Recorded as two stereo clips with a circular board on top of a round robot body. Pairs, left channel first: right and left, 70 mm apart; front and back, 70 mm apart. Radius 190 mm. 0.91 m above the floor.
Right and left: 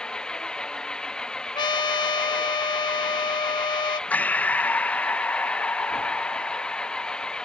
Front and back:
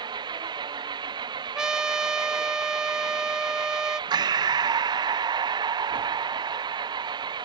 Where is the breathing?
160° right.